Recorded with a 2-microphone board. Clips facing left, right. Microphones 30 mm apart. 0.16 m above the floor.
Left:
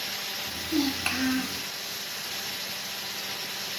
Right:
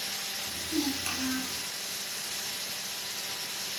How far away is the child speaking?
About 1.7 m.